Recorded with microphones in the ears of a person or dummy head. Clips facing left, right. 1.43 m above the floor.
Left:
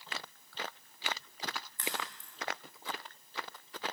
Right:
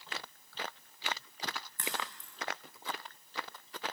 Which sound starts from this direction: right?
A crack, at 1.8 s.